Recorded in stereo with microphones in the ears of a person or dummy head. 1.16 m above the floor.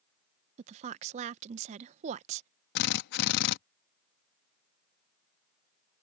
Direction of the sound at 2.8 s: 60° left (ahead or behind).